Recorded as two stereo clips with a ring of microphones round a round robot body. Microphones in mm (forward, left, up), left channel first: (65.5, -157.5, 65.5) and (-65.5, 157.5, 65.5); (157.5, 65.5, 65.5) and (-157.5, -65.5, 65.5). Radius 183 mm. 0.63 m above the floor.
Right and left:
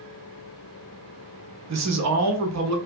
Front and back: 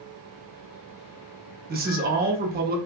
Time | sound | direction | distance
1.7 | a man speaking | 145° left | 1.0 m